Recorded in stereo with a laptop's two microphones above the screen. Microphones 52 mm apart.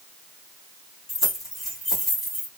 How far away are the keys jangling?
About 1.3 m.